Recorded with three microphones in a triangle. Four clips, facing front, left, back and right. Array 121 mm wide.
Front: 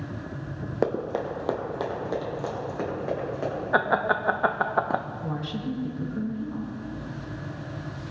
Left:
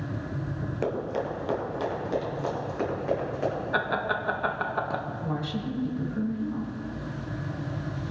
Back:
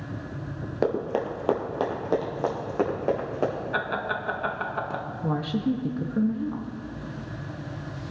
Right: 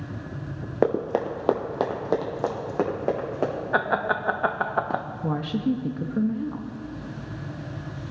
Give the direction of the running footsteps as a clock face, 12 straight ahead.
3 o'clock.